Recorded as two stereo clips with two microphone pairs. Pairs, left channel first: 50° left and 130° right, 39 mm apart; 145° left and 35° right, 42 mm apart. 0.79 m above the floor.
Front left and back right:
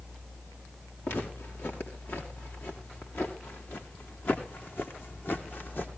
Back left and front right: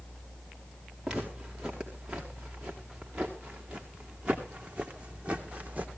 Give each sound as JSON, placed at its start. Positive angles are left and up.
{"t": 1.0, "sound": "footsteps", "azimuth_deg": 40, "distance_m": 5.5}